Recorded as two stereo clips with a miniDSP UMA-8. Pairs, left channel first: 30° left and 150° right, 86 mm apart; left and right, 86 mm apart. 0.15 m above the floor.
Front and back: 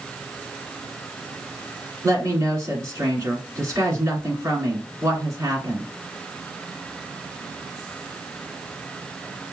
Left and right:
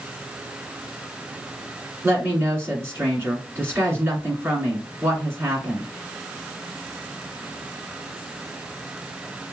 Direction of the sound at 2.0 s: 130° right.